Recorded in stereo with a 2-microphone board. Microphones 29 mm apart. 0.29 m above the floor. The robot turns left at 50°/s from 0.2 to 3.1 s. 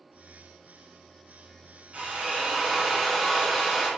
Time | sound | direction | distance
1.9 | a drill | 125° right | 3 m